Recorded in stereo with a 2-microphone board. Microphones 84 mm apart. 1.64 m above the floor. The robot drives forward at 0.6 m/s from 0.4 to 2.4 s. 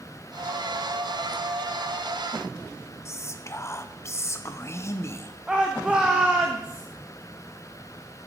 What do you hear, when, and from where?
3.0 s whispering: 35° left (ahead or behind), 0.6 m
5.5 s a shout: 10° right (ahead or behind), 1.0 m